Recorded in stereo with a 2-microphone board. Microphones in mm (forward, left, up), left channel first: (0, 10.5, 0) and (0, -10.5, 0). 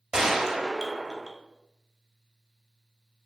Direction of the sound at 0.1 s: 20° right (ahead or behind).